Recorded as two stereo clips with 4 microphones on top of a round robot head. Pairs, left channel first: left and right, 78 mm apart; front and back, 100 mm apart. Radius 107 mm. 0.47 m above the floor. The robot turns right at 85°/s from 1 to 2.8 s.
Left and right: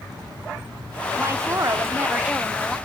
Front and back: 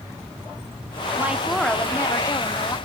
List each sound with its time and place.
1.2 s a woman speaking: 120° right, 1.5 m; by 2.8 s 15° left, 1.5 m